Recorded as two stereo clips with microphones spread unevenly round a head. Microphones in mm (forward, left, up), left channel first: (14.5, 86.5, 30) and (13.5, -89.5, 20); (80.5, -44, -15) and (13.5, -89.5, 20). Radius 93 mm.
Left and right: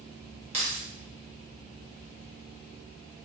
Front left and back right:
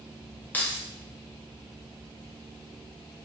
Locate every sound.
0.5 s keys jangling: 55° right, 0.8 m